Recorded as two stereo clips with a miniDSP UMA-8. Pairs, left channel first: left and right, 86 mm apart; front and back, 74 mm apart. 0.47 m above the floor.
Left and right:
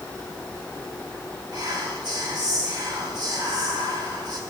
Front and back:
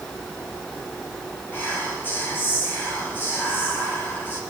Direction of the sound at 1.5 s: 60° right.